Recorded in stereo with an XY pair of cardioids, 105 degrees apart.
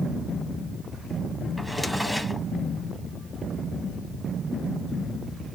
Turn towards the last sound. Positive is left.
turn(degrees=0)